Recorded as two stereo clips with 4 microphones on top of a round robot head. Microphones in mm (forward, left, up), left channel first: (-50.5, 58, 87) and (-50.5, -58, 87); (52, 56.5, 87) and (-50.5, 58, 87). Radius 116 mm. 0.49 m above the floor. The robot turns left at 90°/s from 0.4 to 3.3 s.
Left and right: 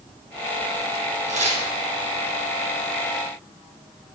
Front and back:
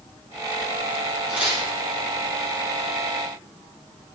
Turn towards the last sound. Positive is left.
turn(degrees=85)